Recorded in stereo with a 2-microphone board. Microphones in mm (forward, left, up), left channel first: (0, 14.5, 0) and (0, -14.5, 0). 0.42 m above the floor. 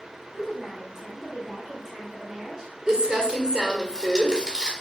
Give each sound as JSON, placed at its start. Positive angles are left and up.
{"t": 0.3, "sound": "a woman speaking", "side_deg": -15, "distance_m": 1.3}
{"t": 2.9, "sound": "crumpling", "side_deg": -25, "distance_m": 1.3}